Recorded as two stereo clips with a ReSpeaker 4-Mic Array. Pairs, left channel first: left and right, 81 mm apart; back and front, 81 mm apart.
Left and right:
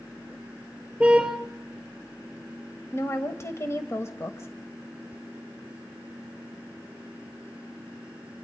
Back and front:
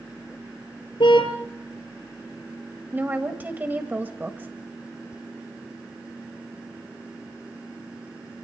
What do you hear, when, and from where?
1.0 s a car horn: 170° right, 3 m
2.9 s a woman speaking: 55° left, 1.3 m